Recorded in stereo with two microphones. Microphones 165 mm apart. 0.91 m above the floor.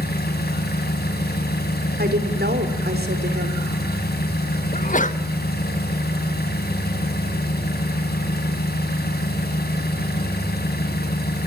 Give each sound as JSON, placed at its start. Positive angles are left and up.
{"t": 0.0, "sound": "an engine running", "side_deg": 75, "distance_m": 3.5}
{"t": 2.0, "sound": "a woman speaking", "side_deg": -75, "distance_m": 3.5}
{"t": 4.7, "sound": "a sneeze", "side_deg": 50, "distance_m": 1.3}